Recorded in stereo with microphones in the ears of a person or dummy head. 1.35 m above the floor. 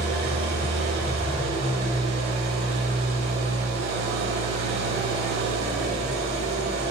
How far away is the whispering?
I don't hear whispering.